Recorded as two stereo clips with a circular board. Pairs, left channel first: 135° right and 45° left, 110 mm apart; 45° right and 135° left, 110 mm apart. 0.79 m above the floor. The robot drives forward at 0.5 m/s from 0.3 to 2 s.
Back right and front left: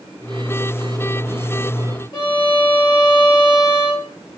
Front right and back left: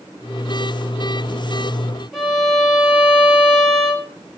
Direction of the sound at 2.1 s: 140° right.